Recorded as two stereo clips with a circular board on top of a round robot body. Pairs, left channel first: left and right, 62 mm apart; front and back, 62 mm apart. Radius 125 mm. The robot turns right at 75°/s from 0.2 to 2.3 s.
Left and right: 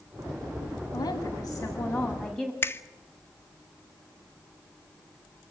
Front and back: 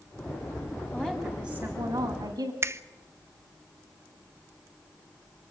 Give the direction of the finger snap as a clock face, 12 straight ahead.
7 o'clock.